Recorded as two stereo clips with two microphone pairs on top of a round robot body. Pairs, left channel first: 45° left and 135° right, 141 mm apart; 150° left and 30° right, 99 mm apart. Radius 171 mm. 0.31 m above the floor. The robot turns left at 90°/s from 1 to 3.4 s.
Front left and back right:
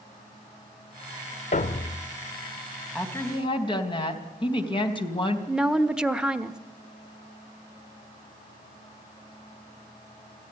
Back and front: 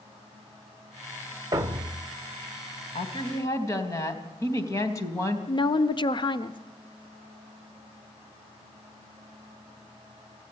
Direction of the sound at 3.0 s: 135° left.